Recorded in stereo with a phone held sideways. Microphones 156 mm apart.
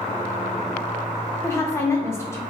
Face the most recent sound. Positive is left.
turn(degrees=20)  # may be behind; listen again after turning